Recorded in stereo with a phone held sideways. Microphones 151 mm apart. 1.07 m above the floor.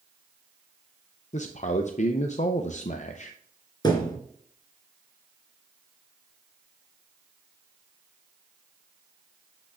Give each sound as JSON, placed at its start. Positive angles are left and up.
{"t": 1.3, "sound": "a man speaking", "side_deg": 55, "distance_m": 0.6}
{"t": 3.8, "sound": "a thud", "side_deg": 30, "distance_m": 2.5}